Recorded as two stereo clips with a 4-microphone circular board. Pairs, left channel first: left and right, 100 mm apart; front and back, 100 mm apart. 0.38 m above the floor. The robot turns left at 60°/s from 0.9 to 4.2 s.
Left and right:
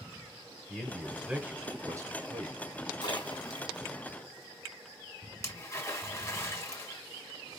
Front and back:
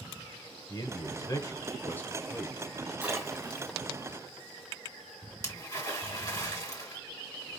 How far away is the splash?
About 1.9 m.